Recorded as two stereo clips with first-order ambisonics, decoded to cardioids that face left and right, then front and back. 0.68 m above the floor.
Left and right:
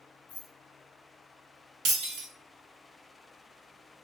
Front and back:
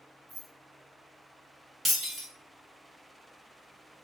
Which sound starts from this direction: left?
Keys jangling, at 0.3 s.